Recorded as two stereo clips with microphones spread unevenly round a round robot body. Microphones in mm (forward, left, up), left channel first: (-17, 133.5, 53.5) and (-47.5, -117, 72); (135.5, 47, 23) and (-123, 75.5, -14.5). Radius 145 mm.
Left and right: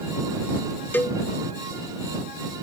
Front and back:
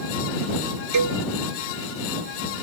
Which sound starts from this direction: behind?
A cowbell, at 0.9 s.